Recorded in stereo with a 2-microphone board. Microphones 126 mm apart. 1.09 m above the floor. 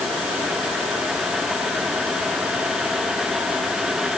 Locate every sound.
Only background noise.